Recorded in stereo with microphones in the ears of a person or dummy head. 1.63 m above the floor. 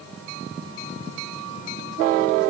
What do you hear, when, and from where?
Only background noise.